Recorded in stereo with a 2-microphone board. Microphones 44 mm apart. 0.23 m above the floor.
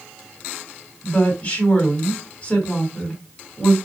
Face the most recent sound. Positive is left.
turn(degrees=25)  # may be behind; listen again after turning